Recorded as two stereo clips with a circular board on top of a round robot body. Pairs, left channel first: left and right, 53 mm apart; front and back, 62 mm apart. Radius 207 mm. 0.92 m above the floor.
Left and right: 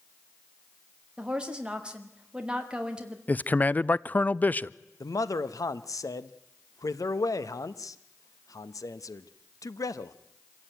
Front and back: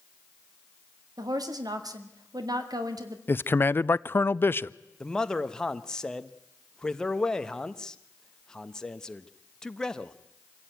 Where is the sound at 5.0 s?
80° left, 1.0 m.